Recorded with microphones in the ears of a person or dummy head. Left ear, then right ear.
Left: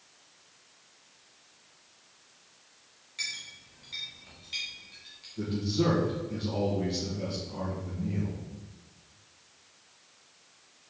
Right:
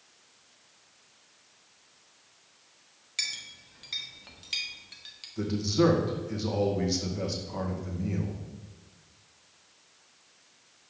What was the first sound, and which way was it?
A clink, 35° right (ahead or behind).